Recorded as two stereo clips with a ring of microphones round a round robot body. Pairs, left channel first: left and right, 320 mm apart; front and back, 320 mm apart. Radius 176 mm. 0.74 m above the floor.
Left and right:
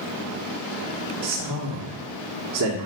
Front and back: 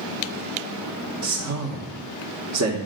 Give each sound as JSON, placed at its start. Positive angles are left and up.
{"t": 1.2, "sound": "a man speaking", "azimuth_deg": -140, "distance_m": 1.5}